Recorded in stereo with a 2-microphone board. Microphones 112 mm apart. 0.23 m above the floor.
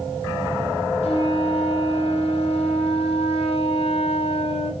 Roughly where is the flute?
Left.